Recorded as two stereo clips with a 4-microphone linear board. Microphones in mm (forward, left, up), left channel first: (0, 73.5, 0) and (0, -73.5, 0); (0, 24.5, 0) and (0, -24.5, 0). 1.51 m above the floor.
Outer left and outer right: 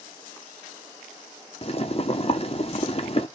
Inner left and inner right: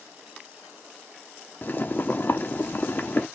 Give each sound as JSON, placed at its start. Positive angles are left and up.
{"t": 1.6, "sound": "boiling", "side_deg": 40, "distance_m": 0.6}